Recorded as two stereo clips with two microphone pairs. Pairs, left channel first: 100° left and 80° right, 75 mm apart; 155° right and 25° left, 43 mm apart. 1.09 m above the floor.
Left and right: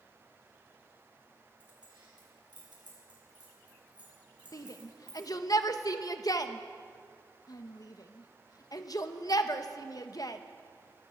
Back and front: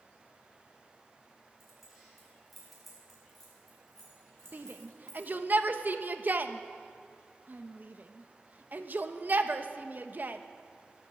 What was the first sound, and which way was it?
Keys jangling, 60° right.